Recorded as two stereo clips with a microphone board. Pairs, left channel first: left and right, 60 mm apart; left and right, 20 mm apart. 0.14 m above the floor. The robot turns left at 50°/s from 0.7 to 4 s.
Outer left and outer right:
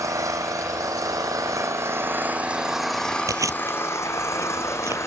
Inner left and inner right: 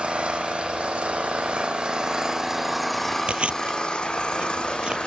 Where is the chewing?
80° right, 0.5 m; by 5.0 s 60° right (ahead or behind), 0.5 m.